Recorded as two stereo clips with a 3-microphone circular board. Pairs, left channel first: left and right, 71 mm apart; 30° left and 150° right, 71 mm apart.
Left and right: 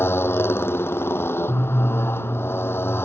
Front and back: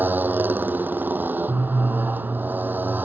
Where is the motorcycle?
145° left.